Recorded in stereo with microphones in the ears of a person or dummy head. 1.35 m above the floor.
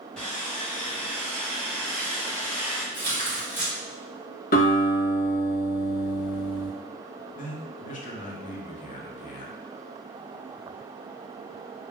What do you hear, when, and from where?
0.2 s sawing: 5° left (ahead or behind), 0.6 m
2.9 s tearing paper: 15° left (ahead or behind), 1.0 m
4.5 s a guitar: 50° left (ahead or behind), 0.8 m
7.3 s a man speaking: 40° left (ahead or behind), 0.6 m